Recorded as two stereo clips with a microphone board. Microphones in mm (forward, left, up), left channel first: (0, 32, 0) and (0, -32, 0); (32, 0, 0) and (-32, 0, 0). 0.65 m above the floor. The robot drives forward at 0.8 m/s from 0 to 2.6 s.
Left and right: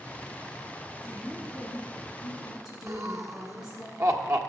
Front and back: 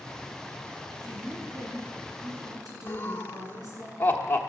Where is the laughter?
60° right, 1.4 m.